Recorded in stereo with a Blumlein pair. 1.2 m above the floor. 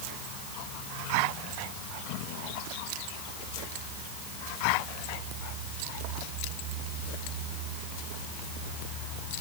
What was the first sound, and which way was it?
Only background noise.